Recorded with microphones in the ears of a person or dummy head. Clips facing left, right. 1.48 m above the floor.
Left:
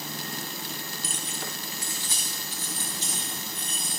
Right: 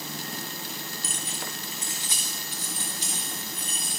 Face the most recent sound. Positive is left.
turn(degrees=-10)  # may be behind; listen again after turning